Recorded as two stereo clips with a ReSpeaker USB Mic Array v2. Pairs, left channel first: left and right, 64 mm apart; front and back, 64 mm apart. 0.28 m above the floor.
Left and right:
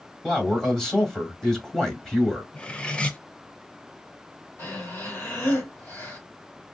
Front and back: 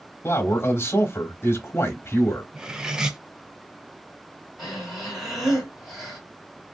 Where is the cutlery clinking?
125° left, 0.5 m.